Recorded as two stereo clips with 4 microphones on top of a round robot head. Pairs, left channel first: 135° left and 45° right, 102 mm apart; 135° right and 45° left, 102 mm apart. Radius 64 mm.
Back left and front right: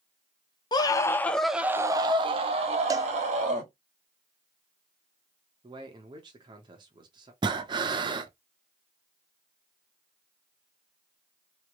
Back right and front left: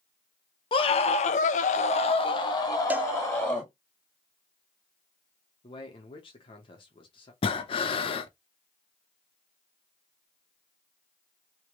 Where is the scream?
175° right, 1.0 m; by 3.7 s 60° right, 1.8 m.